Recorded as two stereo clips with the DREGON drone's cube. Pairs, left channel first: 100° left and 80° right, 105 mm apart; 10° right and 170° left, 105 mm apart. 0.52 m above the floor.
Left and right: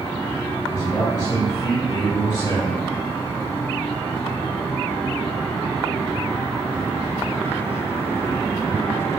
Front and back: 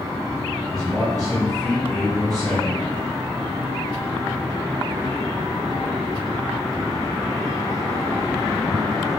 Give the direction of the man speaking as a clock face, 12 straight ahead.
10 o'clock.